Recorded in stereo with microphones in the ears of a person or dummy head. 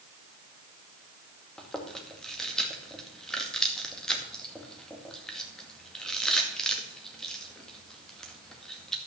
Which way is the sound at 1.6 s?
5° left (ahead or behind).